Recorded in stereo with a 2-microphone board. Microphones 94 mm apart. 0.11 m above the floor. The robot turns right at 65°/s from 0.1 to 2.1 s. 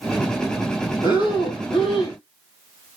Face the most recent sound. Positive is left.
turn(degrees=115)